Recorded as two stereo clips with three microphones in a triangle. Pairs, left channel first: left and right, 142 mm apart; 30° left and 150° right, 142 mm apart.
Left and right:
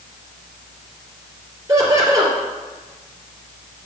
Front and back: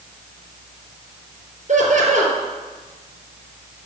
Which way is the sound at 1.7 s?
150° right.